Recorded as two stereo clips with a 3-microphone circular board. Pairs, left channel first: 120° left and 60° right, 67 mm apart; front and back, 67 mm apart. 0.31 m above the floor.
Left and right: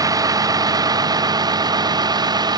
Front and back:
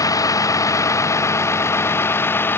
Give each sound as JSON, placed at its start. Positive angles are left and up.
{"t": 0.0, "sound": "a vehicle", "azimuth_deg": -30}